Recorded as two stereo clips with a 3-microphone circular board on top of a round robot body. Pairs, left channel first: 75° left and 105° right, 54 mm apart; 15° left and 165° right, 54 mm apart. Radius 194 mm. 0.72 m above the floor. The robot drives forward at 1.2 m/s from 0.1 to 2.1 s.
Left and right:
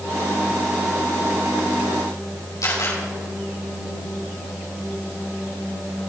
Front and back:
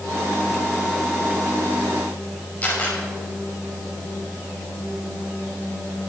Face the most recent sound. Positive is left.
turn(degrees=75)